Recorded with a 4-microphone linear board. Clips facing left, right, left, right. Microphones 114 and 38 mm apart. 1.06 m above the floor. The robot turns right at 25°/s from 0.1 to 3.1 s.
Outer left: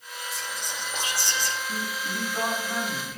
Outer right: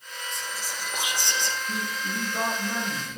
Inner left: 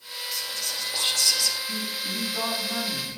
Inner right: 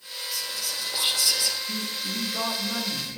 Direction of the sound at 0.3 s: 175° left.